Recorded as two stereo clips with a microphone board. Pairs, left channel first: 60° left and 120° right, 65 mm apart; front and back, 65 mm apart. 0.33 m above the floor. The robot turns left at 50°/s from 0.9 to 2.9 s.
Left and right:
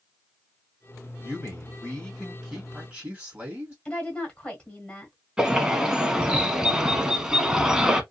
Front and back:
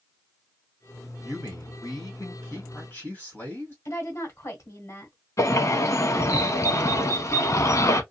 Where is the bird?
40° right, 0.6 m.